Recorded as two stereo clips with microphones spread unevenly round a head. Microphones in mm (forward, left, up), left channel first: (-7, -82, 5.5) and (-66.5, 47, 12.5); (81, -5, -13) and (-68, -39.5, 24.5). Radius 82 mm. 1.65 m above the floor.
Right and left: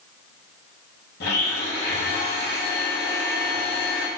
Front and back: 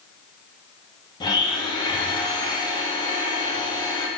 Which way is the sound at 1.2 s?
55° right.